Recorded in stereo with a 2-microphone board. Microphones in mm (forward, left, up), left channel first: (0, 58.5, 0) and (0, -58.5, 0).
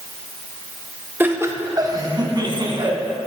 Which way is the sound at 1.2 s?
15° right (ahead or behind).